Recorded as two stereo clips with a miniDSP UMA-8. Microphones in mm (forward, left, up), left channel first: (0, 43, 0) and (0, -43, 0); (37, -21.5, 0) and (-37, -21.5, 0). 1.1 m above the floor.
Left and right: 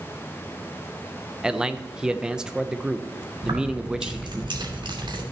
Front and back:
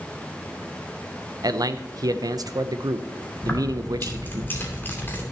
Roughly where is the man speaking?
Behind.